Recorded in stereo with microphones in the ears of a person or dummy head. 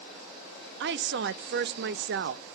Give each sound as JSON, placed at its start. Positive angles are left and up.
{"t": 0.8, "sound": "a woman speaking", "side_deg": -50, "distance_m": 0.5}